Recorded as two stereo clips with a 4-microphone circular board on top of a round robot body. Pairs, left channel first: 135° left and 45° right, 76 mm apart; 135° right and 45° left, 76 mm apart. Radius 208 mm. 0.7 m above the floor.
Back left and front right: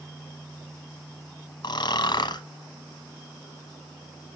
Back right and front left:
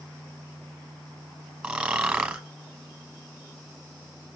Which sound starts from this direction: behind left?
Snoring, at 1.6 s.